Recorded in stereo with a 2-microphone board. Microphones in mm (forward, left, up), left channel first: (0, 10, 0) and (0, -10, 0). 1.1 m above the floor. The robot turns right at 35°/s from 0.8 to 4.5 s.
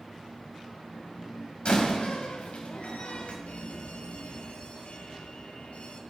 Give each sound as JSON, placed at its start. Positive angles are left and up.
{"t": 1.6, "sound": "a door slam", "side_deg": 55, "distance_m": 5.5}
{"t": 3.5, "sound": "an alarm", "azimuth_deg": 80, "distance_m": 4.0}